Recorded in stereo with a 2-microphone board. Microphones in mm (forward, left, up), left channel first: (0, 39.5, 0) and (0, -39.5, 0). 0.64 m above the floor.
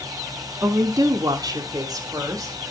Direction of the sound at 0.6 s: 40° right (ahead or behind).